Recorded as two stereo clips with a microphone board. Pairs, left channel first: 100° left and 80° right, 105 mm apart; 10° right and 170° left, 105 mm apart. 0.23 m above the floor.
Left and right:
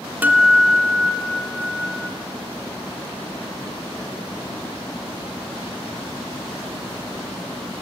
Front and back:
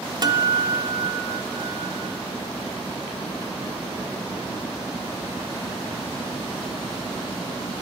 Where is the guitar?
150° right, 1.1 m.